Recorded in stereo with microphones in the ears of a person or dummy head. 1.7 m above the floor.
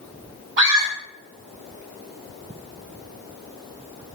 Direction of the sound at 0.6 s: 60° right (ahead or behind).